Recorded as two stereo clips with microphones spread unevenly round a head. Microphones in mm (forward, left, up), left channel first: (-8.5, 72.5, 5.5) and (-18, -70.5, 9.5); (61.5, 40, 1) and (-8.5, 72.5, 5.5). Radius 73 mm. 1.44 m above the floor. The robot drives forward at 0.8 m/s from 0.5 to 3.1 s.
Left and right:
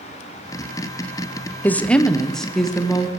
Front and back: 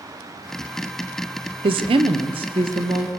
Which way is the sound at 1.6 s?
165° left.